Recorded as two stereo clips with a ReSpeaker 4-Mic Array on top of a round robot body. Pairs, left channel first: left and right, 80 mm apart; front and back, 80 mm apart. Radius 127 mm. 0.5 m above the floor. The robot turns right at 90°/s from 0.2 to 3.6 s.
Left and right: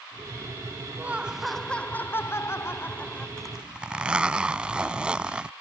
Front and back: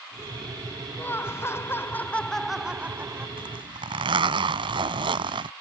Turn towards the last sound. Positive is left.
turn(degrees=-170)